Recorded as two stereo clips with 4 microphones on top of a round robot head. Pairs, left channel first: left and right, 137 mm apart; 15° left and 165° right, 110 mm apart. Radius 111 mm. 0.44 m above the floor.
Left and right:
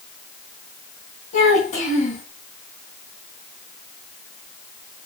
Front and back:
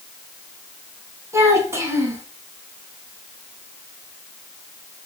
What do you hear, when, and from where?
1.3 s a child speaking: 130° left, 3 m